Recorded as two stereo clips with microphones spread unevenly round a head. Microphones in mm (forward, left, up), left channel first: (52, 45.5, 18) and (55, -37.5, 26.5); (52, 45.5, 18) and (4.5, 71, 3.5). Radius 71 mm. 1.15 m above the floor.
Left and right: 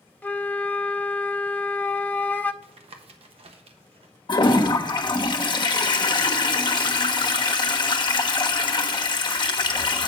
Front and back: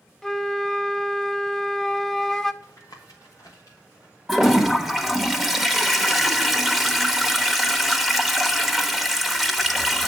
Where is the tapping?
90° right, 1.1 m.